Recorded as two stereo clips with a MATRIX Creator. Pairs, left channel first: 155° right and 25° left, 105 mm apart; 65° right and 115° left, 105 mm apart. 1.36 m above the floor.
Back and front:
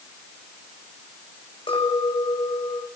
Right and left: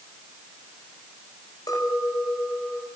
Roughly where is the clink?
Behind right.